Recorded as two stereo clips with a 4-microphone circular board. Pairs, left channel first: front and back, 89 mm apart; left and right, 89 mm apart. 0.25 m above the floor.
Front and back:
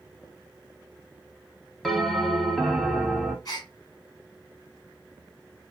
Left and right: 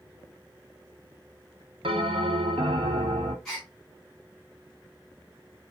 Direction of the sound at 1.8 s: 90° right.